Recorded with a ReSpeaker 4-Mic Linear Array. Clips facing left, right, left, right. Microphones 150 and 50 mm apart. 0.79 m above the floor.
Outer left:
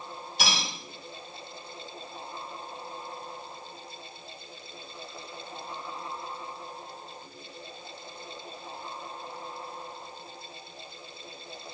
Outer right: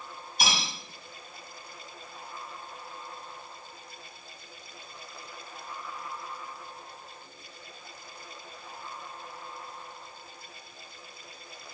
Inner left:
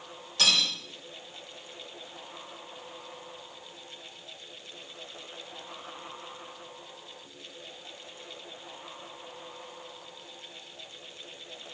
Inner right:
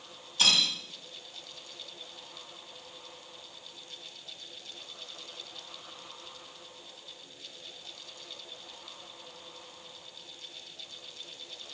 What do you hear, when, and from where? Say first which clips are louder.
0.4 s cutlery clinking: even, even; 85° left, 1.4 m